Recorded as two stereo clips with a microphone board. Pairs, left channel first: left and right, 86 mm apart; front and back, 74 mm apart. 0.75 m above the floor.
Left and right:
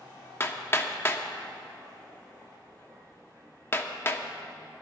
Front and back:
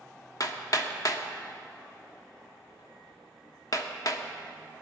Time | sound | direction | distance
0.4 | hammering | 30° left | 1.0 m